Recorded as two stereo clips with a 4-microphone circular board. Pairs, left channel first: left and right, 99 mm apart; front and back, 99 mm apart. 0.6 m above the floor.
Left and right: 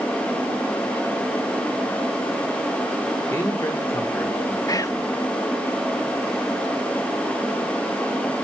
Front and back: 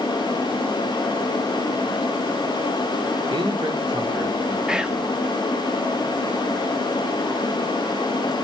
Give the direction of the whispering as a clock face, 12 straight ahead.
9 o'clock.